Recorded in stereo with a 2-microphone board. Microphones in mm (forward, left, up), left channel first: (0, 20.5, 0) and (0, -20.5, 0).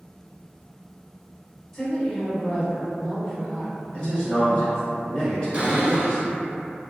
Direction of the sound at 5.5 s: 25° right (ahead or behind).